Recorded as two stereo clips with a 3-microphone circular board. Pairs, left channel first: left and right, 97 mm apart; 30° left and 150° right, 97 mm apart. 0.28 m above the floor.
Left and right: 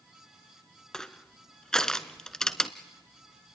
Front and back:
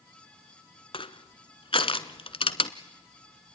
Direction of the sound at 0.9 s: 5° left.